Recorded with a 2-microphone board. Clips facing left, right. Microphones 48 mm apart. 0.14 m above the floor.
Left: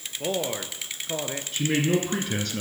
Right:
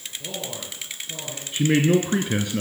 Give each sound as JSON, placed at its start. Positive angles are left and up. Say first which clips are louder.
{"t": 0.2, "sound": "a man speaking", "louder": "left 7 dB", "side_deg": 50, "distance_m": 2.5}
{"t": 1.5, "sound": "a man speaking", "louder": "right 5 dB", "side_deg": -20, "distance_m": 1.9}